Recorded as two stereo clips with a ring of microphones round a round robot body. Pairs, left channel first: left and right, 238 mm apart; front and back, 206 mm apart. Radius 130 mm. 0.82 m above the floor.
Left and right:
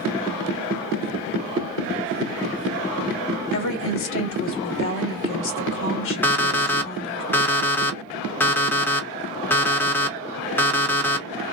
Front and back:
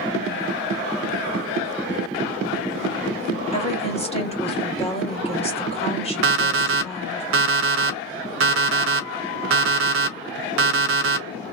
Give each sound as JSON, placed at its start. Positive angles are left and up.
{"t": 3.5, "sound": "a woman speaking", "azimuth_deg": 60, "distance_m": 1.9}
{"t": 6.2, "sound": "an alarm clock", "azimuth_deg": 170, "distance_m": 0.6}